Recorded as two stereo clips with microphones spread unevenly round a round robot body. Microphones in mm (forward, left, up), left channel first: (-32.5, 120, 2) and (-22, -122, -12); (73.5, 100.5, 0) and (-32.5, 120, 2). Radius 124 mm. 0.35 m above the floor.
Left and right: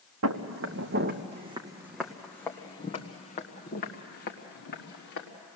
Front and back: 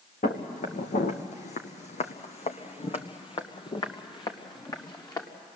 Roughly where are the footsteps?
Ahead right.